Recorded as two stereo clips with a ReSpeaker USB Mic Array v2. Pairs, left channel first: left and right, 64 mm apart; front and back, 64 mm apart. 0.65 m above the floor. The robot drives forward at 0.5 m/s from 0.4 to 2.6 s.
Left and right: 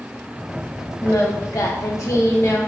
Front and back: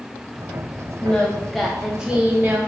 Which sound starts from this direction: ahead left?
Singing, at 1.0 s.